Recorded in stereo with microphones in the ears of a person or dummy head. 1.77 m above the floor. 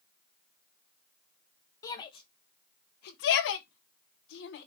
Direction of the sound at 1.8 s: 20° left (ahead or behind).